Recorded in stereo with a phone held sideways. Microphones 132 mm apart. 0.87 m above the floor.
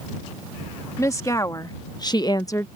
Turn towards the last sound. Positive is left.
turn(degrees=20)  # may be behind; listen again after turning